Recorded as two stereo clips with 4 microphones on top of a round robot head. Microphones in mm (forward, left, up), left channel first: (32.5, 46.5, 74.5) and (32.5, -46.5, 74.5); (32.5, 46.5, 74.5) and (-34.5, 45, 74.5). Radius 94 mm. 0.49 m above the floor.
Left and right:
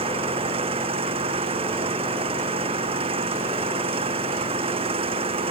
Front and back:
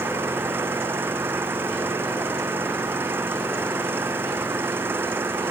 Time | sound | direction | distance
0.0 | an engine running | 115° right | ?